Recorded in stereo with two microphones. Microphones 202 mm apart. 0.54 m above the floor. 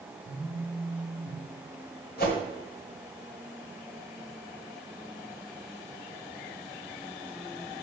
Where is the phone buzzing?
35° right (ahead or behind), 1.4 m.